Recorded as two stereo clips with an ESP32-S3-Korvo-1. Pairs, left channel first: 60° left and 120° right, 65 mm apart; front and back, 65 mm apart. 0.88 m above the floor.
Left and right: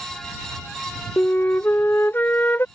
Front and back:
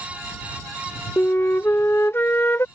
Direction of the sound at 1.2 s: 25° left.